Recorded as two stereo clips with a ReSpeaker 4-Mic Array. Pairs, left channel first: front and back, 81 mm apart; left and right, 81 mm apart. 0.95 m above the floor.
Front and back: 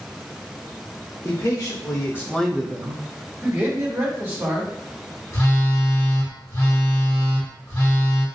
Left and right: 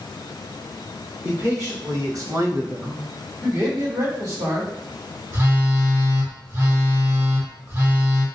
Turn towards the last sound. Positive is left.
turn(degrees=-40)